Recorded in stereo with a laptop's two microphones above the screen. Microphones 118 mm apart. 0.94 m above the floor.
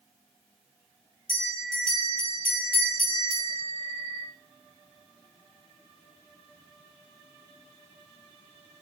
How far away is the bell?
About 1.1 m.